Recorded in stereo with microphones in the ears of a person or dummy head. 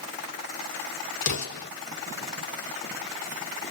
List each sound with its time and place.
1.2 s an explosion: 60° left (ahead or behind), 1.0 m